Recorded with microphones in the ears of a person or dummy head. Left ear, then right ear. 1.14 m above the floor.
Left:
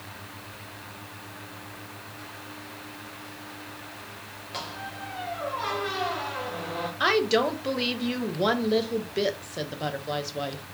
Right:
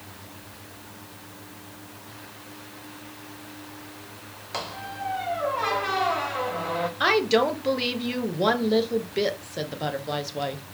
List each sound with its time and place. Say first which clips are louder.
4.5 s a squeak: right 3 dB; 20° right (ahead or behind), 0.6 m
7.0 s a woman speaking: right 1 dB; 5° right (ahead or behind), 0.6 m